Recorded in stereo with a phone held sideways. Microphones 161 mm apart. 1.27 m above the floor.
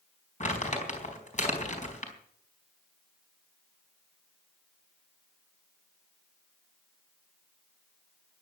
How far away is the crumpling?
About 4 m.